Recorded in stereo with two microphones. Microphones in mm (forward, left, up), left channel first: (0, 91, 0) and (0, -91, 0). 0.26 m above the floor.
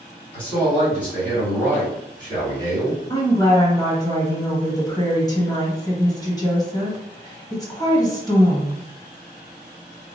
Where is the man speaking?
10° left (ahead or behind), 1.8 m.